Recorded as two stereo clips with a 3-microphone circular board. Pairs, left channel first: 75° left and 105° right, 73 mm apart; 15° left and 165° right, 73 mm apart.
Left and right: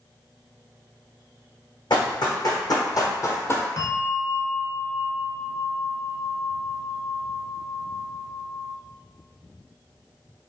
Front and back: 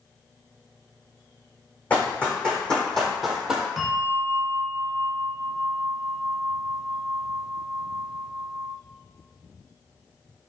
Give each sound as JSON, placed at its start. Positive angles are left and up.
{"t": 1.9, "sound": "running footsteps", "azimuth_deg": 90, "distance_m": 1.7}
{"t": 3.8, "sound": "a bell", "azimuth_deg": 110, "distance_m": 0.9}